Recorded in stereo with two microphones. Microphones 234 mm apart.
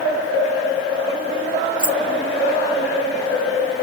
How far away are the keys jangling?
About 3.5 m.